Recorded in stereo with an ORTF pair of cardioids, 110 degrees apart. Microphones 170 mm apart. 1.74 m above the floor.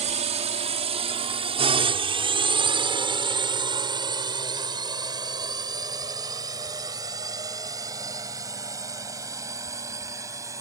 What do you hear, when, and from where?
0.0 s a drone: 40° right; by 10.6 s 20° right